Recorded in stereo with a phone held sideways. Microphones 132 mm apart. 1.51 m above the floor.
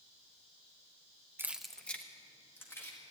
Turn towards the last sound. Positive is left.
turn(degrees=20)  # may be behind; listen again after turning